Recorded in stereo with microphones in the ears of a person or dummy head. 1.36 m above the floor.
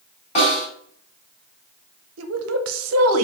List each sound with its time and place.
0.3 s a snare drum: 40° left (ahead or behind), 2.0 m
2.2 s a woman speaking: 80° right, 0.7 m